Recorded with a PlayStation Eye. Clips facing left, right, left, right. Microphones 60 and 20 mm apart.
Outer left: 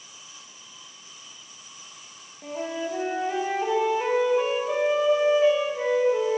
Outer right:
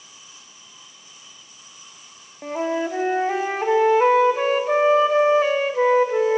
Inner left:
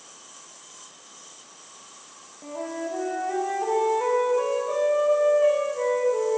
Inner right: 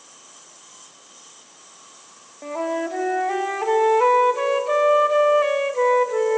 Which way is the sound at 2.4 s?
55° right (ahead or behind).